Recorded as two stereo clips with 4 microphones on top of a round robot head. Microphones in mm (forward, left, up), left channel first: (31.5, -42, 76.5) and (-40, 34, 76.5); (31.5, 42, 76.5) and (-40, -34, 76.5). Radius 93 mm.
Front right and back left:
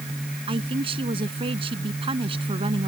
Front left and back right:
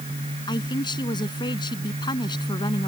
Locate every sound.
0.5 s a man speaking: 95° left